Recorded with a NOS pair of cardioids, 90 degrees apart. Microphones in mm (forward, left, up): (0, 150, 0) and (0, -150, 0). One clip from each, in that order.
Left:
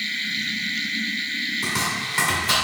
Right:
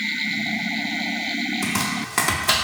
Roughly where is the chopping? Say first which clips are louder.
Left 1 dB; ahead right.